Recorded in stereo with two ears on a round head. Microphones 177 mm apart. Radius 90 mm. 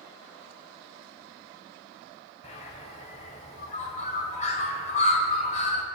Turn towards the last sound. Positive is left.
turn(degrees=35)  # may be behind; listen again after turning